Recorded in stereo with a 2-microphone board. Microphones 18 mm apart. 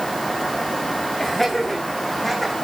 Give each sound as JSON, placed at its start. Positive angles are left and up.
{"t": 1.2, "sound": "laughter", "side_deg": 15, "distance_m": 7.5}